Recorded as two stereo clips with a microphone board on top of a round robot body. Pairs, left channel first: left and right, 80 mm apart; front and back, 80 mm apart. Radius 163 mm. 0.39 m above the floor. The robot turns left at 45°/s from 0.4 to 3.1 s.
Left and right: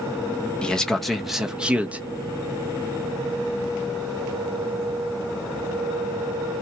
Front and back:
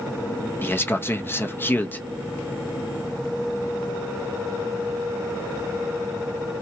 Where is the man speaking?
25° left, 0.9 m; by 2.0 s 40° right, 0.9 m.